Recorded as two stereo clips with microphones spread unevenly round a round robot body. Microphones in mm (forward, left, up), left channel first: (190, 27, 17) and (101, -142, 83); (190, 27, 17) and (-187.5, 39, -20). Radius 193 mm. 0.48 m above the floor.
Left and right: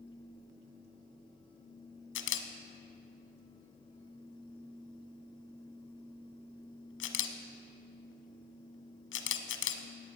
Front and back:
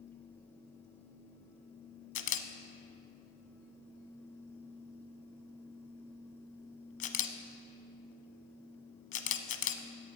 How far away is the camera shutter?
About 0.8 m.